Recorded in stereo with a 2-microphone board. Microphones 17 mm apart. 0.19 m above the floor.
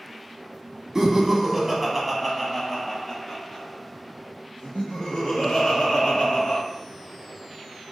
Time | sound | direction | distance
0.9 | laughter | 35° right (ahead or behind) | 1.1 m